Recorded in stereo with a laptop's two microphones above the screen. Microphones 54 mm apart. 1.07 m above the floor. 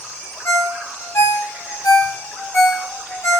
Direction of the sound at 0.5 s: 65° left (ahead or behind).